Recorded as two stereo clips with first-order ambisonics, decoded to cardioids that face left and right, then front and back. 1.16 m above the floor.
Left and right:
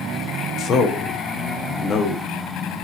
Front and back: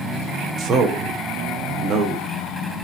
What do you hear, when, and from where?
0.6 s a man speaking: 140° left, 0.5 m